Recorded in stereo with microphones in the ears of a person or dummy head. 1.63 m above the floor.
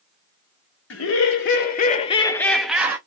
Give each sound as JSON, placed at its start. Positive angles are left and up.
{"t": 0.9, "sound": "laughter", "side_deg": 80, "distance_m": 0.9}